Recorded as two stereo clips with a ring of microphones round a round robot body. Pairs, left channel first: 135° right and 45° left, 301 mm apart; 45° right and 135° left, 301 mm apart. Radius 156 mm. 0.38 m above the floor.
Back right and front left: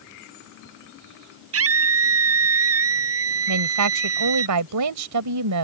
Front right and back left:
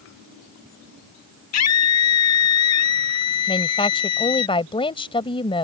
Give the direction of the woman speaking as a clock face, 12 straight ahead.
11 o'clock.